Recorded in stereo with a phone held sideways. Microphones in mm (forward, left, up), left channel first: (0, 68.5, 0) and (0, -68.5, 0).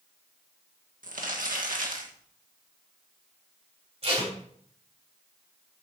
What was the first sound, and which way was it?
Crumpling, 75° right (ahead or behind).